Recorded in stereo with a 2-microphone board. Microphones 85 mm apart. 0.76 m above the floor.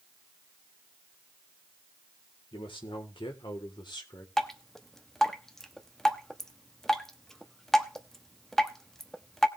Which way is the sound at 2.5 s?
70° left (ahead or behind).